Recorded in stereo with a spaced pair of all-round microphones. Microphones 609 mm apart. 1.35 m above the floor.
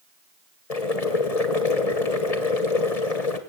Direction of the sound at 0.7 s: 80° left.